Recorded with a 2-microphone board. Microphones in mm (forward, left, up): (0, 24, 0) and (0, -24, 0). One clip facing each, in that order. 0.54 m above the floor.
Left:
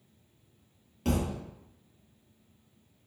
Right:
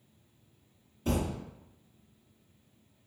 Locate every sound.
1.1 s a thud: 75° left (ahead or behind), 1.5 m